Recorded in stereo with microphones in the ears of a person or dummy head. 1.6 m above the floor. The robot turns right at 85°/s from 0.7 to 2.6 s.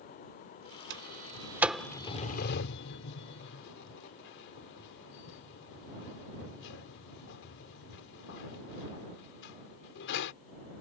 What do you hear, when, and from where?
0.9 s a sliding door: 70° right (ahead or behind); by 10.3 s 75° left (ahead or behind)